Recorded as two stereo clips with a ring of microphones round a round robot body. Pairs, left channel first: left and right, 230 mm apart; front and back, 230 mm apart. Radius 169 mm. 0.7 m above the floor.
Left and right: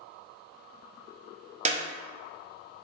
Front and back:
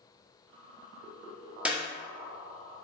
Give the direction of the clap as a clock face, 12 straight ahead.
3 o'clock.